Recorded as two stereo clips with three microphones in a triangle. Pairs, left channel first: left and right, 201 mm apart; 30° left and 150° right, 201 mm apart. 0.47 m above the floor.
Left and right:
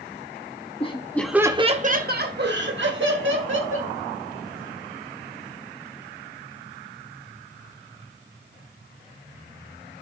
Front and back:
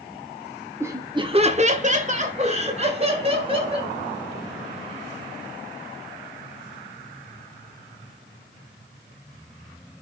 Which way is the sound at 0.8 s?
140° left.